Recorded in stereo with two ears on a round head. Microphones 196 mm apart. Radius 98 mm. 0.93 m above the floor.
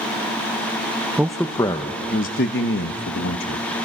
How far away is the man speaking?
About 0.7 m.